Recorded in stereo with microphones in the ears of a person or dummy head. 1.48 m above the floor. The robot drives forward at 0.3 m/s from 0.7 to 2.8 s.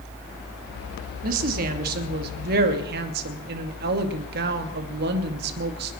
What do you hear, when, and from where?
1.2 s a woman speaking: 50° right (ahead or behind), 2.5 m; by 5.9 s 60° right (ahead or behind), 2 m